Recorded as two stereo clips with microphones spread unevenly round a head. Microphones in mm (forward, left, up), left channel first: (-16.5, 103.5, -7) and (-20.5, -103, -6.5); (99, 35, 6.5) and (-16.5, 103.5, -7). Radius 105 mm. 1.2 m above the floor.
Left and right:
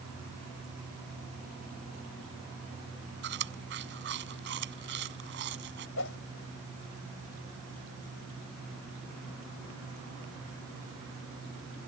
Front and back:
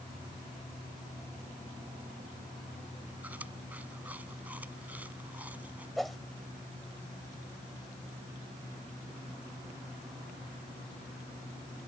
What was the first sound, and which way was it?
Chewing, 125° right.